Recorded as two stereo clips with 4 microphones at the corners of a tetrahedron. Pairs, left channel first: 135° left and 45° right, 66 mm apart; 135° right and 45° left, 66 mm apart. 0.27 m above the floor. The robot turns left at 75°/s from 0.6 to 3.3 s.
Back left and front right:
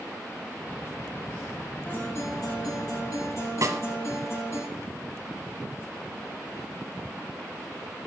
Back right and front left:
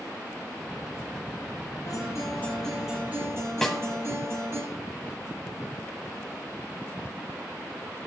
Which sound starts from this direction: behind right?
A guitar, at 1.9 s.